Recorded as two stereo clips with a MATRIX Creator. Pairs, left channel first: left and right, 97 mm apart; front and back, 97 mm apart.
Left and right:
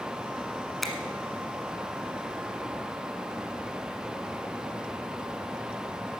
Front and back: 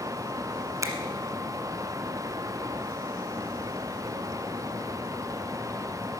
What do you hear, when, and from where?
0.8 s a finger snap: straight behind, 1.2 m